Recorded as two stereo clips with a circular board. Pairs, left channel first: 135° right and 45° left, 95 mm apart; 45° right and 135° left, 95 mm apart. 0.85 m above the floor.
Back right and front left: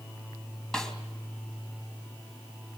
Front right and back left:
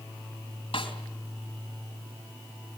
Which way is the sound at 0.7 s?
50° right.